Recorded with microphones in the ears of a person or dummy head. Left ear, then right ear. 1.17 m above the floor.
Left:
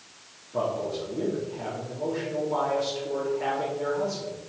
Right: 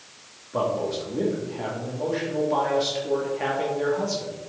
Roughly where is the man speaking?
Right.